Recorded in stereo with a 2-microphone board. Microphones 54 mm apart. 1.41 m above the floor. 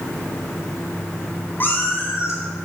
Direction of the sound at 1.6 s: 40° left (ahead or behind).